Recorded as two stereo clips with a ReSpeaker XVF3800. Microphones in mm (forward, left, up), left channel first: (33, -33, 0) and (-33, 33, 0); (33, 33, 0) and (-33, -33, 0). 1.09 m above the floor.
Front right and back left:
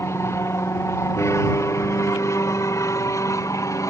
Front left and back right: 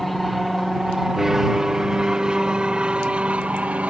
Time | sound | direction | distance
0.0 | an aircraft | 45° right | ?